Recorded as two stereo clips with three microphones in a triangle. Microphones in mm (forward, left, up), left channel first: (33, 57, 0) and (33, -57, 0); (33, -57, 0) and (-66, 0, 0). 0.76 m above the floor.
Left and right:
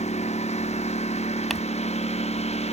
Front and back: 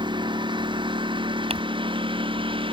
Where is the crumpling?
Straight behind.